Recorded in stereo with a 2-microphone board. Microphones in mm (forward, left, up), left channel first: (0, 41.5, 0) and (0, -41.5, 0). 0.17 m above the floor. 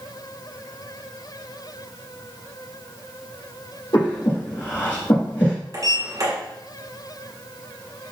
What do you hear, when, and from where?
3.9 s breathing: 60° left (ahead or behind), 2 m
5.7 s a sliding door: 45° right (ahead or behind), 1.3 m